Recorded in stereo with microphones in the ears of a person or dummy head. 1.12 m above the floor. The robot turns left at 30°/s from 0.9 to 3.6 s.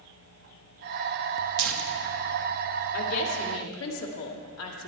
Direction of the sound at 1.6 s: 70° right (ahead or behind).